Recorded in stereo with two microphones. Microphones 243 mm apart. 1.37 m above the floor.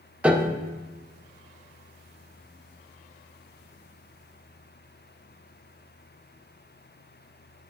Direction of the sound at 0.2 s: 5° right (ahead or behind).